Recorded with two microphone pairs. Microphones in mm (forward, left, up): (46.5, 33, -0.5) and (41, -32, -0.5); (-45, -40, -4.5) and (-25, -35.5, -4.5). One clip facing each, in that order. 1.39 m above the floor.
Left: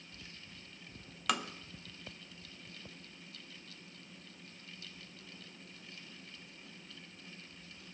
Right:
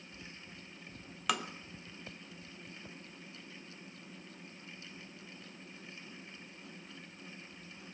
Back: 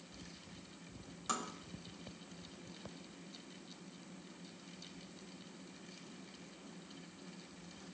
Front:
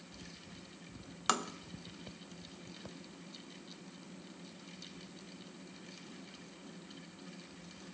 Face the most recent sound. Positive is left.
turn(degrees=-5)